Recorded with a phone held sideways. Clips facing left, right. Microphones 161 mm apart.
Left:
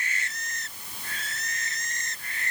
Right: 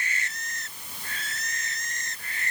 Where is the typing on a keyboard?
No typing on a keyboard in this recording.